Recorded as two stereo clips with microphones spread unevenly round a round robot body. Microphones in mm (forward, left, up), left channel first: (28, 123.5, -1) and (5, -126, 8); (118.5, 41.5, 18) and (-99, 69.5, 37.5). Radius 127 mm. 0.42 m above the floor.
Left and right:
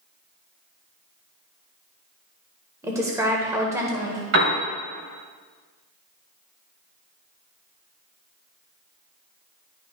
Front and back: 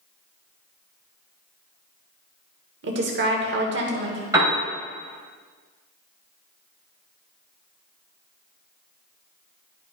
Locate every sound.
2.8 s a woman speaking: 170° right, 1.3 m
4.3 s a piano: 110° right, 2.5 m